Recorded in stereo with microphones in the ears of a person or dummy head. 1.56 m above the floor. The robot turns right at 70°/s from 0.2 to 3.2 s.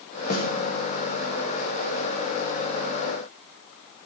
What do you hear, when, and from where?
0.3 s a snare drum: 50° left (ahead or behind), 2.5 m; by 0.5 s 35° left (ahead or behind), 2.5 m